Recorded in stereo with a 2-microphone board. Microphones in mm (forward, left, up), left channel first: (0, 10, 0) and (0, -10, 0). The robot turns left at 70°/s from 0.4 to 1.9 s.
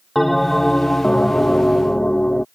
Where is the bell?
175° left; by 2.5 s 70° left.